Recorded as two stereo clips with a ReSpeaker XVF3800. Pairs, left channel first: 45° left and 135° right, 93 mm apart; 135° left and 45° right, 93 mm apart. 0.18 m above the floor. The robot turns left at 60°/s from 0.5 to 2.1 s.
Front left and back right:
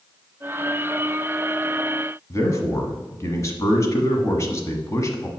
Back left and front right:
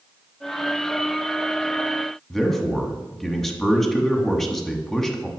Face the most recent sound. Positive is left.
turn(degrees=50)